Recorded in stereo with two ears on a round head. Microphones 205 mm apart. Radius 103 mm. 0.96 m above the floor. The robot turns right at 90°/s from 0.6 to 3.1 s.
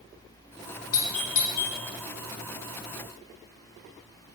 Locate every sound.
0.9 s a doorbell: 65° left (ahead or behind), 2 m; by 1.8 s 25° left (ahead or behind), 2 m